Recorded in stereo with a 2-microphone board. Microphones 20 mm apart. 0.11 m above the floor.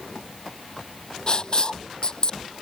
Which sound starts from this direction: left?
Writing, at 1.3 s.